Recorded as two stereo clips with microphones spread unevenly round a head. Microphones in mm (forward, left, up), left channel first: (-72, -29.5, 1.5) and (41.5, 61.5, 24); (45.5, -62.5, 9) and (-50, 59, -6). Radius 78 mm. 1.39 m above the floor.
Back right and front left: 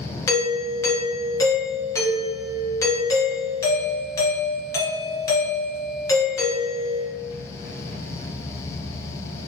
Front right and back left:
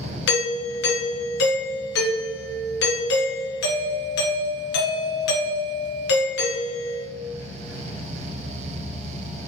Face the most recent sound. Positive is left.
turn(degrees=-70)